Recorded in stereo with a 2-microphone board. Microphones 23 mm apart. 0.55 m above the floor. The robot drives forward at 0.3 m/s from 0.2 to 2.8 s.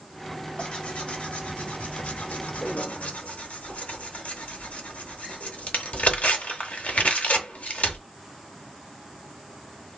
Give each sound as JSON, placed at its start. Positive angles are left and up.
{"t": 0.6, "sound": "tearing paper", "side_deg": 45, "distance_m": 0.9}